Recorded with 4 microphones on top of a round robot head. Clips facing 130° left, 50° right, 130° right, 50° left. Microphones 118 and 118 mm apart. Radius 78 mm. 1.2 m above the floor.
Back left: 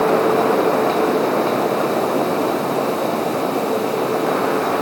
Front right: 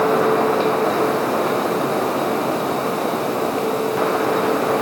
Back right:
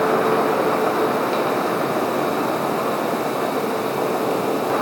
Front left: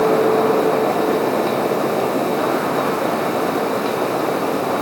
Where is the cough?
No cough in this recording.